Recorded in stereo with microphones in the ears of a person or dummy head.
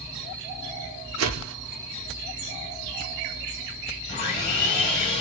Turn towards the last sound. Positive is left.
turn(degrees=35)  # may be behind; listen again after turning